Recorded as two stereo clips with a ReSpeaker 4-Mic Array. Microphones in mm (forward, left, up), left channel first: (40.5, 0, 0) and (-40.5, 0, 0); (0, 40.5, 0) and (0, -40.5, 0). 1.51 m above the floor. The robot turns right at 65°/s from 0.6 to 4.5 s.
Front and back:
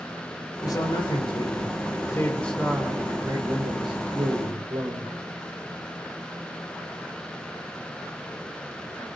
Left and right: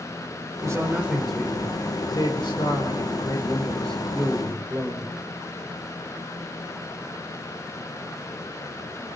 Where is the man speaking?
45° right, 5.5 m; by 5.2 s 150° right, 5.5 m.